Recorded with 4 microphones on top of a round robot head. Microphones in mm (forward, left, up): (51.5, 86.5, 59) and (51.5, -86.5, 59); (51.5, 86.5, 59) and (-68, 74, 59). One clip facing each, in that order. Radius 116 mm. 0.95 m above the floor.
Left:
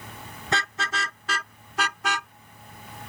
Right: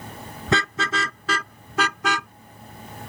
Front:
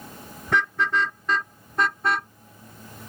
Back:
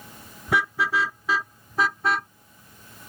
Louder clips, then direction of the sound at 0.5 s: Right 6 dB, even; 90° right.